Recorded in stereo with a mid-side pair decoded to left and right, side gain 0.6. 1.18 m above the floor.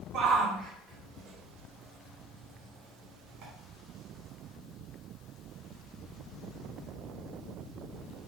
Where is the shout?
45° right, 1.9 m; by 3.5 s 55° right, 3.5 m.